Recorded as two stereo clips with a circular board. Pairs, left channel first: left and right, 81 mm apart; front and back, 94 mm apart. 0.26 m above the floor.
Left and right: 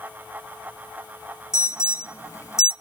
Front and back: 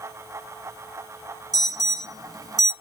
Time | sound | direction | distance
1.5 | an alarm | 140° left | 1.3 m